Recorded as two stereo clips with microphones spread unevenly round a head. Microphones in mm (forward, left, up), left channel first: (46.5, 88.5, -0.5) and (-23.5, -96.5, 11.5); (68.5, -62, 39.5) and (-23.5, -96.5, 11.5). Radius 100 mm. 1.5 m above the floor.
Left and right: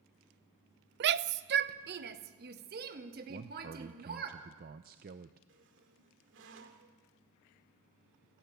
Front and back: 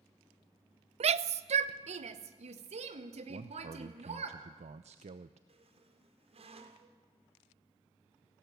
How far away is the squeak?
About 2.5 m.